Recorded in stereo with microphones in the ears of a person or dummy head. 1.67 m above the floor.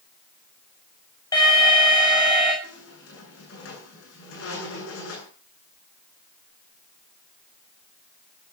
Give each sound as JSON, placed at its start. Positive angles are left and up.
{"t": 1.3, "sound": "an alarm", "side_deg": 20, "distance_m": 8.5}
{"t": 2.6, "sound": "a squeak", "side_deg": 65, "distance_m": 9.5}